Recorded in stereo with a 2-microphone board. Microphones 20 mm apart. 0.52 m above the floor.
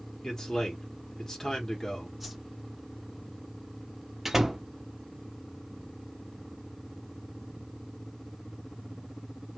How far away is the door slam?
About 0.5 m.